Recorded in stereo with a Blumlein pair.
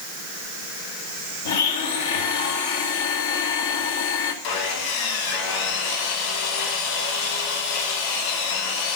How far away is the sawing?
About 4 m.